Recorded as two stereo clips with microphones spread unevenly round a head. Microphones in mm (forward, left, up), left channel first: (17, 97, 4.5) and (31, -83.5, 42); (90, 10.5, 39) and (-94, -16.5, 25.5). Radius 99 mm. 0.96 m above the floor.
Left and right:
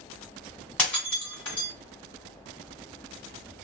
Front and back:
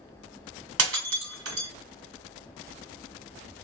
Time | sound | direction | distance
0.8 | breaking glass | 175° right | 1.4 m